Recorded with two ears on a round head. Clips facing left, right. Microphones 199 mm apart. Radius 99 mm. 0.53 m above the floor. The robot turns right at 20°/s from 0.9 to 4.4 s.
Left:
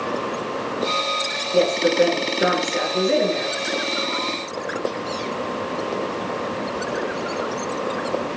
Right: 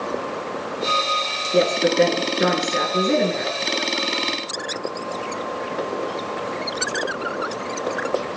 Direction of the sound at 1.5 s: 145° right.